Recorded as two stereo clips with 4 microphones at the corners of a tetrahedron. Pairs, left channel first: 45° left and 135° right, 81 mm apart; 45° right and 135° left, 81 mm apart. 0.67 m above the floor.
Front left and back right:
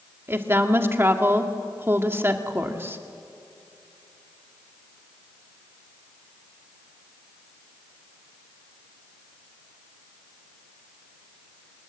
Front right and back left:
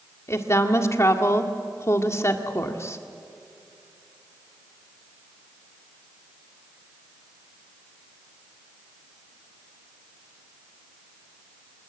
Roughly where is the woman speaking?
Right.